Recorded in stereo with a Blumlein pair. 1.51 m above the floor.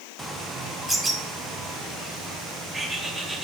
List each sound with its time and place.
0.2 s a bird: 10° right, 1.0 m